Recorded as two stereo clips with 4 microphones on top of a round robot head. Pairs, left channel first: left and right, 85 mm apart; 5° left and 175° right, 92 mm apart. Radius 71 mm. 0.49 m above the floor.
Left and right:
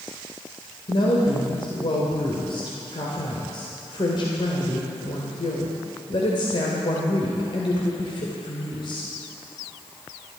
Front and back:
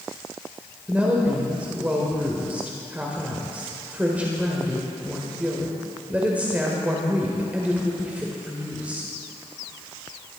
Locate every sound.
0.9 s a woman speaking: 115° left, 2.0 m